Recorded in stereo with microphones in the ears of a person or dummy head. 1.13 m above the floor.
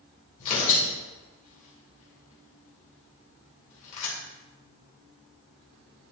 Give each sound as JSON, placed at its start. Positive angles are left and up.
{"t": 0.4, "sound": "tearing paper", "side_deg": 35, "distance_m": 2.5}